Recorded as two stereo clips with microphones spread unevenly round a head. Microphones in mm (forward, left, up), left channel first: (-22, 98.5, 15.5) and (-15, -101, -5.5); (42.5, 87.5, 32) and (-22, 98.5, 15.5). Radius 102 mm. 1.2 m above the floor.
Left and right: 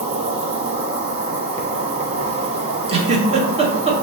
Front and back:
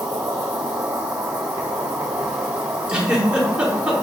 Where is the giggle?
100° right, 0.8 m.